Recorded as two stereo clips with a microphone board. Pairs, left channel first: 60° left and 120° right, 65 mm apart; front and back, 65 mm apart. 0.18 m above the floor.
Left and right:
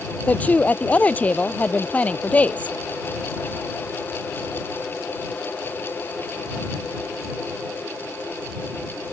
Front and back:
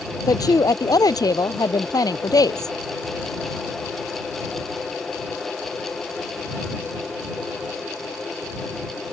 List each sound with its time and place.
0.3 s a woman speaking: 5° right